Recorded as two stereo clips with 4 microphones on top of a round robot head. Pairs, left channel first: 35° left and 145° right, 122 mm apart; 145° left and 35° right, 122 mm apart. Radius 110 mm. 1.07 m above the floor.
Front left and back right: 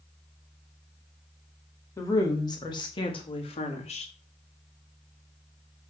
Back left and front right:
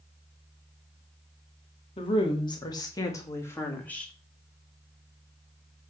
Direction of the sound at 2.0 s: 100° left.